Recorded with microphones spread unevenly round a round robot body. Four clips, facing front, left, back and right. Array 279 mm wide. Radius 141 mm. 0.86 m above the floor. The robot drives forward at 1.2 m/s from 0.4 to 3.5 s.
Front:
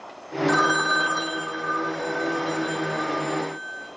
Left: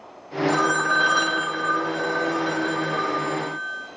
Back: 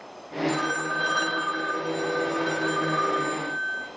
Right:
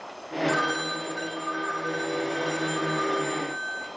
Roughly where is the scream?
No scream in this recording.